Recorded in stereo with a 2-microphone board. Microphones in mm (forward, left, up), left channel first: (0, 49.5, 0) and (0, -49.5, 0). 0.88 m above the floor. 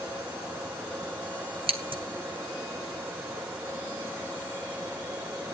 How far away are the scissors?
About 1.7 m.